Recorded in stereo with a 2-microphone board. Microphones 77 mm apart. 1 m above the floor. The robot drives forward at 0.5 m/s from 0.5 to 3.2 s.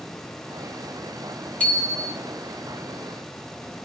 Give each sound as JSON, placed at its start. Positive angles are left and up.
{"t": 1.6, "sound": "a bicycle bell", "side_deg": 15, "distance_m": 3.5}